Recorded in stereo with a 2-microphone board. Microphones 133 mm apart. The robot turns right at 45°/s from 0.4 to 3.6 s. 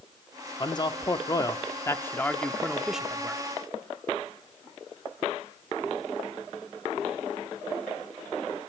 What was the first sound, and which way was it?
A man speaking, 80° left.